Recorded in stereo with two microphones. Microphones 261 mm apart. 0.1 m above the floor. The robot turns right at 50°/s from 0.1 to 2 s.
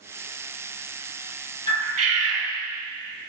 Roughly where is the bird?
Right.